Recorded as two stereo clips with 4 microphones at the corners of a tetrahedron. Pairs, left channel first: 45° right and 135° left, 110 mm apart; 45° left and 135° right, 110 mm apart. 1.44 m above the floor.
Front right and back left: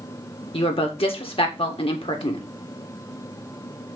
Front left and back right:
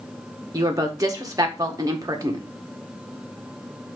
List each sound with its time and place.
0.5 s a woman speaking: 75° right, 1.6 m